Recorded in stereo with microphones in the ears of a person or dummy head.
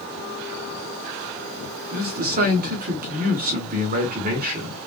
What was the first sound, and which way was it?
A man speaking, 45° right (ahead or behind).